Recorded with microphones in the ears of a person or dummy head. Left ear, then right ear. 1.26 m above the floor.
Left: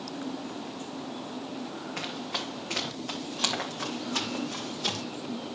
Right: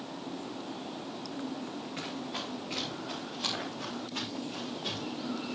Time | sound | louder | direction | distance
2.0 | running footsteps | left 5 dB | 40° left (ahead or behind) | 5.5 m